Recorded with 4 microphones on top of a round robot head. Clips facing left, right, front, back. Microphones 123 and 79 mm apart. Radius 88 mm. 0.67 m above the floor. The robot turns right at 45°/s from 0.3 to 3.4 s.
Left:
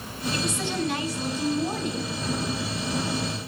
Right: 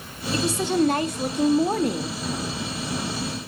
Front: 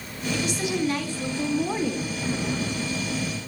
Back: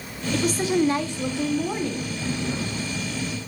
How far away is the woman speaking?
About 1.7 m.